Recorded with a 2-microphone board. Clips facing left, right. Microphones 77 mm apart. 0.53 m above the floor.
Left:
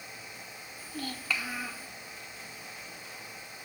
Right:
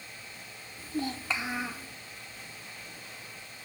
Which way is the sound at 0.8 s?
25° right (ahead or behind).